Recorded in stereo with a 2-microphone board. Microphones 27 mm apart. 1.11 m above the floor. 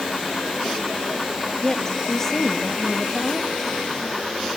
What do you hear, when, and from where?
1.6 s a woman speaking: 15° left (ahead or behind), 2 m